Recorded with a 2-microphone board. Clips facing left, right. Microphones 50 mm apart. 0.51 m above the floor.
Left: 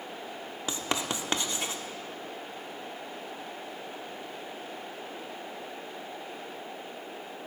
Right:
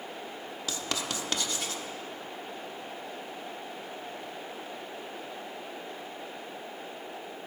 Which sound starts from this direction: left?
Writing, at 0.7 s.